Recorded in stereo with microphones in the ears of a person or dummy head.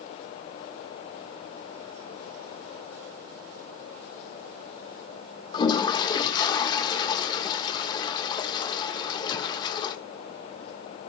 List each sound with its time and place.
5.5 s a toilet flushing: 30° left (ahead or behind), 1.6 m